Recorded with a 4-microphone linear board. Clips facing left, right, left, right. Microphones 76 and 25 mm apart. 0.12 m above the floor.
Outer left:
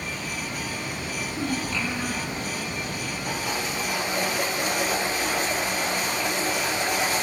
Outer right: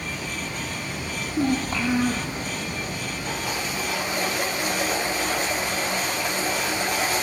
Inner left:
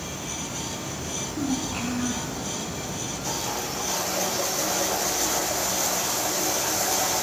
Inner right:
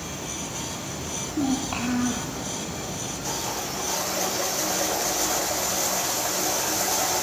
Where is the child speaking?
50° right (ahead or behind), 3.5 m; by 2.3 s 35° right (ahead or behind), 3.5 m.